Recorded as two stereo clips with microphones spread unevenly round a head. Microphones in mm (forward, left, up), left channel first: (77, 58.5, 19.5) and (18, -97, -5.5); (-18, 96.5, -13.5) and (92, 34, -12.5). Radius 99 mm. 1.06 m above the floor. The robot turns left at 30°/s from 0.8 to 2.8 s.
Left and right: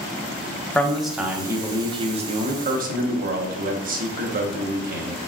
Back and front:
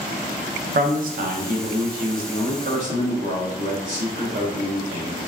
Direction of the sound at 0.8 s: 20° right.